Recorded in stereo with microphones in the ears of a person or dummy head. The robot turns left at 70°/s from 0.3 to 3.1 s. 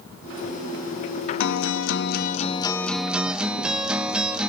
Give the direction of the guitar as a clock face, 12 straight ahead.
8 o'clock.